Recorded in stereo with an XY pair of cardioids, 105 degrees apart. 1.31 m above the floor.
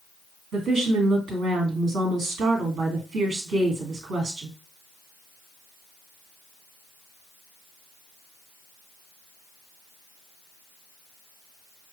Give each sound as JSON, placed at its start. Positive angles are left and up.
{"t": 0.5, "sound": "a woman speaking", "azimuth_deg": -65, "distance_m": 2.0}